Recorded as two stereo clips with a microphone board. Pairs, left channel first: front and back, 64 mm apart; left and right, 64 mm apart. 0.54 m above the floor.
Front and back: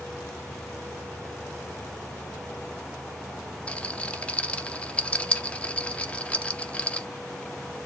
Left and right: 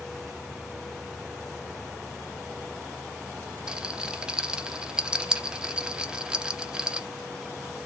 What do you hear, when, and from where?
3.7 s a rattle: 35° right, 0.5 m